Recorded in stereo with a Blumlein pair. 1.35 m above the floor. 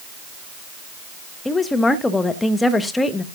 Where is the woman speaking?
10° left, 1.4 m.